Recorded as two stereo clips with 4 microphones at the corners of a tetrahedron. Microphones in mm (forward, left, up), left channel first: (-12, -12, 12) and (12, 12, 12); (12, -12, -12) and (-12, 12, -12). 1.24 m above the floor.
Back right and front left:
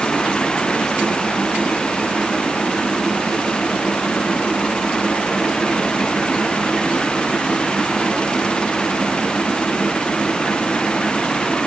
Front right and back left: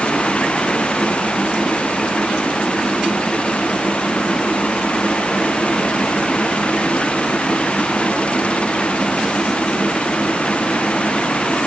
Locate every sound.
Only background noise.